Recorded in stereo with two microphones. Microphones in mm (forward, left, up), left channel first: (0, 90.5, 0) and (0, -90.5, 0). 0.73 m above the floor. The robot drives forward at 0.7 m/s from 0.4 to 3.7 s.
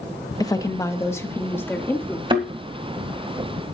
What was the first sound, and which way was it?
A woman speaking, 20° left (ahead or behind).